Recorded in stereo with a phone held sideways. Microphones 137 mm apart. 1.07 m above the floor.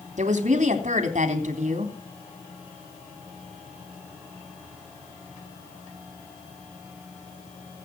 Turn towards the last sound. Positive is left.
turn(degrees=-60)  # may be behind; listen again after turning